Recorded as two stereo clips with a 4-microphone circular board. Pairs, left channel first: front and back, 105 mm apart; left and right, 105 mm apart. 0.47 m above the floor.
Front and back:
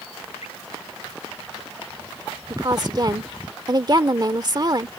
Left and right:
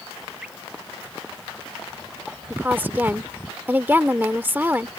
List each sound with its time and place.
0.4 s dripping: 10° right
2.5 s a woman speaking: 155° right